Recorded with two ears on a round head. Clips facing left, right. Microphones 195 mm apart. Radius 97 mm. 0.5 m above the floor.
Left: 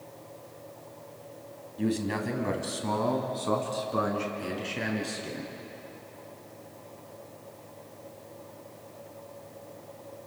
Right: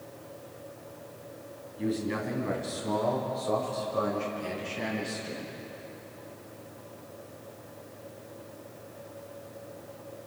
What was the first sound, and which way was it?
A man speaking, 65° left (ahead or behind).